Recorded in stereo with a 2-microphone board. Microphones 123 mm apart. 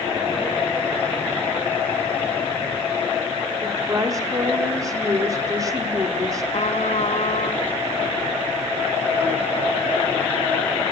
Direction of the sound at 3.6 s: 30° right (ahead or behind).